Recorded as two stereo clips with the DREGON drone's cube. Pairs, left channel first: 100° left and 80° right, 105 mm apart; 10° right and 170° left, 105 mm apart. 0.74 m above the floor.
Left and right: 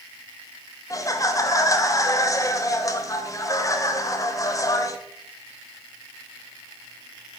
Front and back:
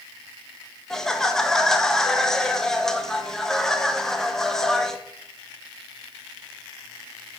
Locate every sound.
0.9 s laughter: 75° left, 0.7 m